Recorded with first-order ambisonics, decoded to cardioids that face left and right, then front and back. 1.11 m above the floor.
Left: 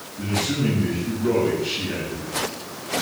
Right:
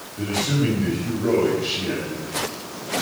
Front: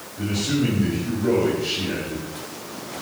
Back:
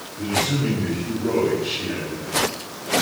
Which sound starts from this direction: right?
A man speaking, at 0.2 s.